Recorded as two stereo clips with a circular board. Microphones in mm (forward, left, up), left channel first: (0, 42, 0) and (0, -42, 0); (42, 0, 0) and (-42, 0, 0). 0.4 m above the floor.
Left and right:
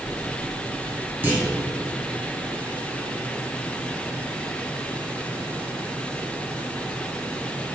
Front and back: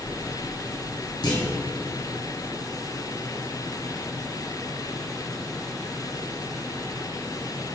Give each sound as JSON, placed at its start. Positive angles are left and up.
{"t": 1.2, "sound": "a clunk", "azimuth_deg": -25, "distance_m": 3.0}